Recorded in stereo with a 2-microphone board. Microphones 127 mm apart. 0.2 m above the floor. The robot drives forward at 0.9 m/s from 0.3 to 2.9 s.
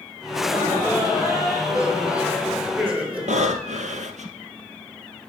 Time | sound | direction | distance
0.3 | laughter | 5° right (ahead or behind) | 5 m
3.3 | breathing | 70° right (ahead or behind) | 1.0 m